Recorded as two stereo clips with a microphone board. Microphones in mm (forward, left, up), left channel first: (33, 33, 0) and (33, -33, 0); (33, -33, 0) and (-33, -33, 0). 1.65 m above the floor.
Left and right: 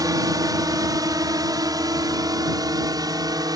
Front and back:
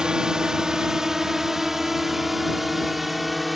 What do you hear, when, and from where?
0.0 s a drone: 100° right; by 3.6 s 90° right